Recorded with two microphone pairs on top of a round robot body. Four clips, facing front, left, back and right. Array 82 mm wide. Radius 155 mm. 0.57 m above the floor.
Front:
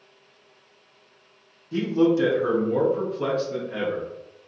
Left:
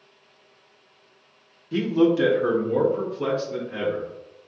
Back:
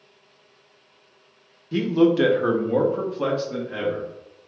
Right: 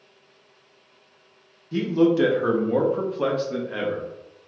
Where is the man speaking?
140° left, 0.8 m; by 4.1 s 105° right, 1.7 m.